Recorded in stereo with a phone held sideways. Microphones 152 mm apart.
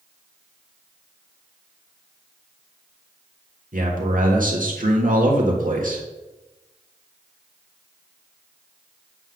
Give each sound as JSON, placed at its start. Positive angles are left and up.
{"t": 3.7, "sound": "a man speaking", "side_deg": -65, "distance_m": 1.8}